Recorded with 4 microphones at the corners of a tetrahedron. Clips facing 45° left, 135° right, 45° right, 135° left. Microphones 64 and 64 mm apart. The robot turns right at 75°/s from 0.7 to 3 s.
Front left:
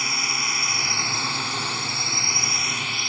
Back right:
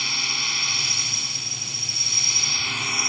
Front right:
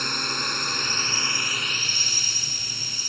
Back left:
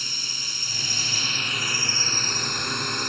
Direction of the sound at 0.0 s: 20° right.